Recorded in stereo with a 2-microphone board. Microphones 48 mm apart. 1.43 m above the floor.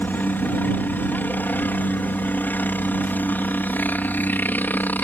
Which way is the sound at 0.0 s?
40° left (ahead or behind).